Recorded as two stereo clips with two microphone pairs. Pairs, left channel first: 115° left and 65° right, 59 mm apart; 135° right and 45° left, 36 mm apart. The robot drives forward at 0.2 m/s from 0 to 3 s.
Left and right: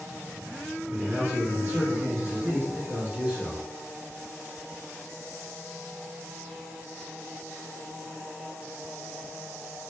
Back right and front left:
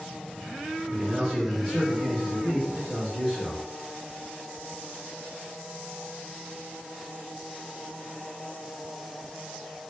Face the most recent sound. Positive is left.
turn(degrees=-95)